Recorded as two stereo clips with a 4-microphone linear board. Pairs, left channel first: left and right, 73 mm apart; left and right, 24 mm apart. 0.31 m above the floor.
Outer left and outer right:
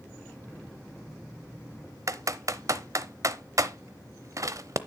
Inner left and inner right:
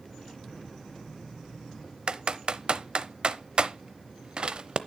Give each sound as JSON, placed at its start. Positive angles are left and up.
{"t": 2.1, "sound": "typing on a keyboard", "side_deg": -45, "distance_m": 0.7}